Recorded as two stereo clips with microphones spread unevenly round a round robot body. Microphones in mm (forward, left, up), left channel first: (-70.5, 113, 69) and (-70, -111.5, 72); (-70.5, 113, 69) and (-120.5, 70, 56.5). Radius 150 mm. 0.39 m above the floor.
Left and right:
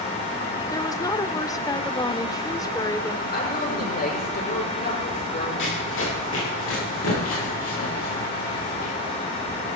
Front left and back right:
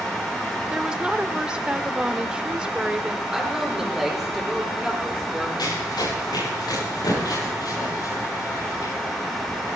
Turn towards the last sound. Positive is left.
turn(degrees=60)